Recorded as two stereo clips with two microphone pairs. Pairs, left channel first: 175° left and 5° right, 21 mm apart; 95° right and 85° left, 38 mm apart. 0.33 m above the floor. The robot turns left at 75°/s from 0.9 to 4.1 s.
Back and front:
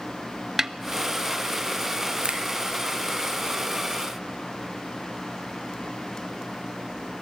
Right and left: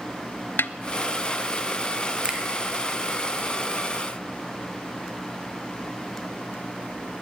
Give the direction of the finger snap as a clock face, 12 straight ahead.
11 o'clock.